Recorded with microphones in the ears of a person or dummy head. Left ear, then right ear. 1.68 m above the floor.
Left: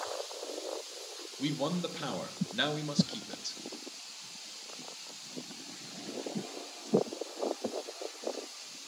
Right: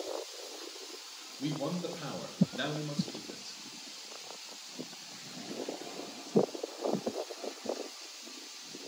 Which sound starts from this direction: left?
A man speaking, at 1.4 s.